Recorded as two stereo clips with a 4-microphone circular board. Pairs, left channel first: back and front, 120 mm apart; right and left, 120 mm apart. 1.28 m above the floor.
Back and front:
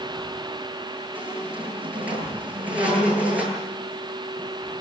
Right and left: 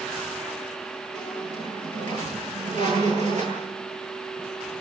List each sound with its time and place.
1.1 s a squeak: 80° left, 9.5 m